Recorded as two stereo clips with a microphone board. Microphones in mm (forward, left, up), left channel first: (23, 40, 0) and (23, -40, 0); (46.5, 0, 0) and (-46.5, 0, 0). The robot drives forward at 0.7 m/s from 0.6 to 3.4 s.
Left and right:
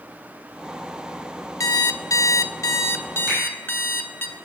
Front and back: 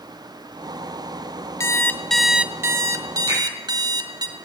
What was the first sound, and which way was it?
An alarm clock, 50° left.